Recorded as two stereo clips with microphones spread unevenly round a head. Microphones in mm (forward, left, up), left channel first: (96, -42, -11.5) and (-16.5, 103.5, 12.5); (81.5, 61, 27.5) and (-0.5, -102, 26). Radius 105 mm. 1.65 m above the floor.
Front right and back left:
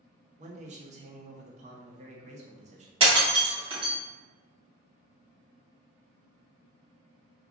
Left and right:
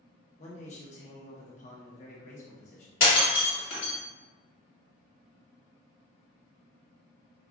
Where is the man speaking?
110° left, 0.8 m.